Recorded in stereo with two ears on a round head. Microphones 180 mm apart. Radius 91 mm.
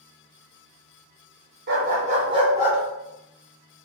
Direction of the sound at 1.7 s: 50° right (ahead or behind).